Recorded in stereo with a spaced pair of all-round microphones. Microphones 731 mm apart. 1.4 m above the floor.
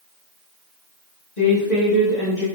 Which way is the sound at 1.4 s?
70° left (ahead or behind).